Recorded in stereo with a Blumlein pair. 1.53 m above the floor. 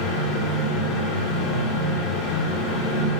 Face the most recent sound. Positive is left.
turn(degrees=40)